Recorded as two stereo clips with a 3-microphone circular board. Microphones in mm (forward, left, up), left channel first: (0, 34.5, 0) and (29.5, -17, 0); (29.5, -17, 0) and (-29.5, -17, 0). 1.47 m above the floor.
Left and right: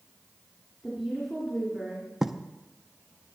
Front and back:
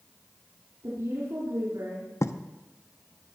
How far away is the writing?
About 0.6 m.